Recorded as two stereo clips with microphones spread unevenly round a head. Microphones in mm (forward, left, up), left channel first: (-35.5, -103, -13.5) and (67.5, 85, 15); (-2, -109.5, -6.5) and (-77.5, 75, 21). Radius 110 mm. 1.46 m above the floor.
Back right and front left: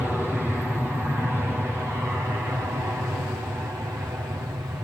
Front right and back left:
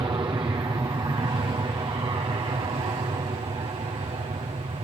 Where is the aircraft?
155° left; by 4.8 s 135° left.